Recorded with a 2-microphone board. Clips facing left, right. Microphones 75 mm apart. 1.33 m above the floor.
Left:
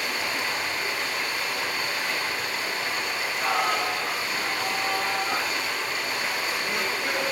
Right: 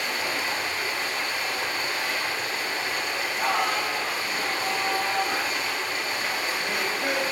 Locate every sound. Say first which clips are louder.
0.0 s running water: even; 35° right (ahead or behind), 3.5 m
3.1 s singing: right 1 dB; 80° right, 5.5 m